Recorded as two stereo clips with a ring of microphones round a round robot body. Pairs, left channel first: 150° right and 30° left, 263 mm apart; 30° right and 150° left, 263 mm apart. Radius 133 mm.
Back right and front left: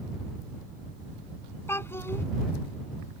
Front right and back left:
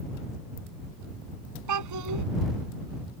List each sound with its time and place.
1.7 s a child speaking: 130° left